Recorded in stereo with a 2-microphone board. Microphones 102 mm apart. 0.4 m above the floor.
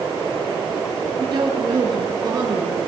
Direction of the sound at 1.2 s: 45° right (ahead or behind).